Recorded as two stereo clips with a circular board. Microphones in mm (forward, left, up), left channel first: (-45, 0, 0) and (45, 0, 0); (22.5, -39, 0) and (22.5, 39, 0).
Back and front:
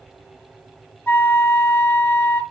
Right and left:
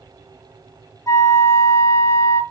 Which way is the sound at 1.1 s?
125° right.